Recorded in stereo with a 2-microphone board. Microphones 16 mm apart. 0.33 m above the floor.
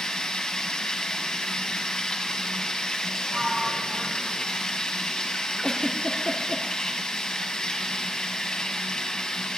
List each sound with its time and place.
0.0 s running water: 60° left (ahead or behind), 2 m
3.3 s a sliding door: 40° right (ahead or behind), 2.5 m
5.6 s a giggle: 50° left (ahead or behind), 2.5 m